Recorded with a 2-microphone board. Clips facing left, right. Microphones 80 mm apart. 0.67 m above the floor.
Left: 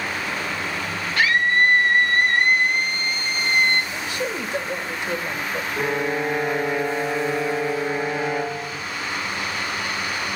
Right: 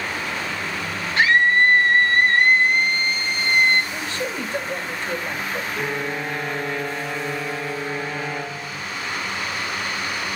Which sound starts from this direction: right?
A scream, at 1.2 s.